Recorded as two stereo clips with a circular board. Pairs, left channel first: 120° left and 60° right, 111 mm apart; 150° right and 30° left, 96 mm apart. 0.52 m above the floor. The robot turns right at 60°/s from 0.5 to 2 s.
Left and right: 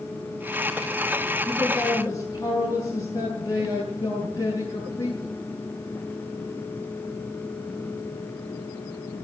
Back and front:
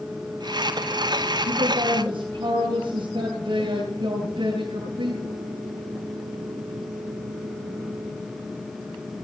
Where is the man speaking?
30° left, 8.5 m; by 5.2 s 65° left, 8.5 m.